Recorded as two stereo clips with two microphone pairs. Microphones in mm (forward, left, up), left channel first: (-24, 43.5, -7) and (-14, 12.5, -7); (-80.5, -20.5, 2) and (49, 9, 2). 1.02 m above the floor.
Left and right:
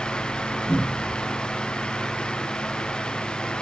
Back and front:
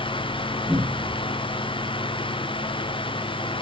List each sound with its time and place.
0.7 s a cupboard door: 85° left, 0.8 m